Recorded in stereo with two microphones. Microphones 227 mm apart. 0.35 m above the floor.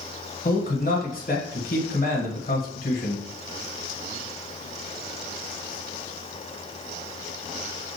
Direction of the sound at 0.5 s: 40° left (ahead or behind).